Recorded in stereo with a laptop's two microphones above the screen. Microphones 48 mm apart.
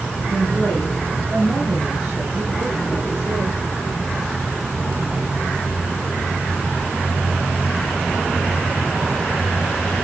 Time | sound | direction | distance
0.3 | a woman speaking | 20° right (ahead or behind) | 3.5 m